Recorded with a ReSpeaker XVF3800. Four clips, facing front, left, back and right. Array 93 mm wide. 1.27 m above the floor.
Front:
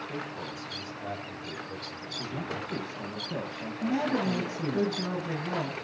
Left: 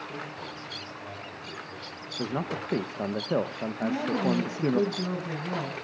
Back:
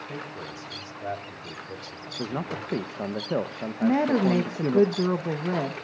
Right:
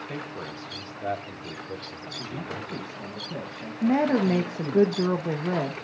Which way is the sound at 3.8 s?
135° right.